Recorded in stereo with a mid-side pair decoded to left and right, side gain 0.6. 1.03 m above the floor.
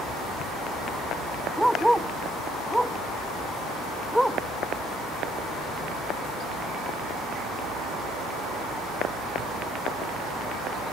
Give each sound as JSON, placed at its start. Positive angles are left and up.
{"t": 1.6, "sound": "a dog barking", "azimuth_deg": 0}